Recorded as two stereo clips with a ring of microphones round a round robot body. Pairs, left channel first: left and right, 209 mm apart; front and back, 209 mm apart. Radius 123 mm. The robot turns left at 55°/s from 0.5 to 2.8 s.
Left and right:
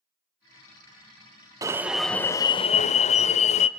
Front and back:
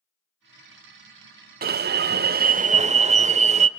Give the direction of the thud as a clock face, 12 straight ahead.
I don't hear a thud.